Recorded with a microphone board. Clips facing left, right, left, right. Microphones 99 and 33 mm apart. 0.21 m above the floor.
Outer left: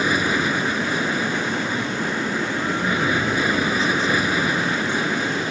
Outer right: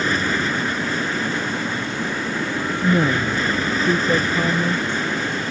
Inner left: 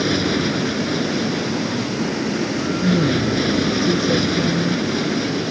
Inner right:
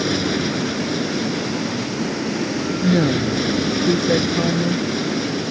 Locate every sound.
0.0 s an aircraft: 10° left (ahead or behind)
2.8 s a woman speaking: 45° right (ahead or behind)